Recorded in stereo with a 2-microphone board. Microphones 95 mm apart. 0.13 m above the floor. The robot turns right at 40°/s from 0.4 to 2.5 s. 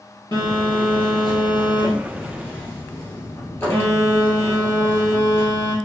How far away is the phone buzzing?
About 1.5 m.